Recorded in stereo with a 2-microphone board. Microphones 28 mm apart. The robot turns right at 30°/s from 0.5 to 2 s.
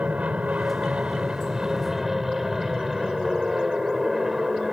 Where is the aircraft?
55° right (ahead or behind); by 4.7 s 20° right (ahead or behind).